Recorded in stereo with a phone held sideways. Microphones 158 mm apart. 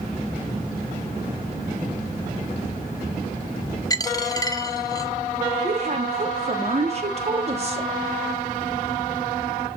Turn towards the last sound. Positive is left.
turn(degrees=-45)  # may be behind; listen again after turning